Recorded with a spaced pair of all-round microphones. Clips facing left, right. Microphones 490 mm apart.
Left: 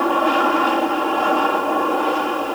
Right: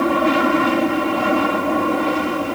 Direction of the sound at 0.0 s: 45° right (ahead or behind).